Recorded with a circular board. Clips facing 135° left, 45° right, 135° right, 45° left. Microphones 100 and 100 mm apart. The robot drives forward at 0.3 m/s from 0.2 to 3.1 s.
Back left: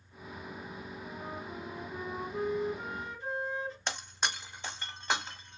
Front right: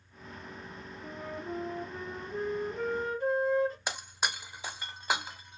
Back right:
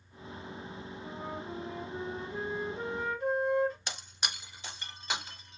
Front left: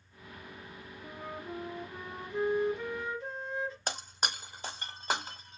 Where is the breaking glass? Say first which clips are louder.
Front right 1 dB, front left 4 dB; 35° left, 0.6 m.